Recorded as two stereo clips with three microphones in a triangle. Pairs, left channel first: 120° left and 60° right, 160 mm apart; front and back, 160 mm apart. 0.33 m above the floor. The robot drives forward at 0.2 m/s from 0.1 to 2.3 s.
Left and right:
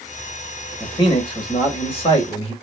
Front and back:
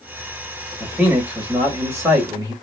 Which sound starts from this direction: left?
A man speaking, at 0.8 s.